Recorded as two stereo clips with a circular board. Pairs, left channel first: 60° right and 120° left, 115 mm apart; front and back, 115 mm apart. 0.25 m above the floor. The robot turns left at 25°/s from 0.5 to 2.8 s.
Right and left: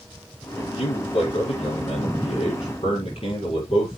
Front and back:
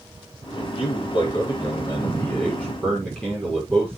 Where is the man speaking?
25° right, 6.5 m; by 4.0 s 85° right, 6.5 m.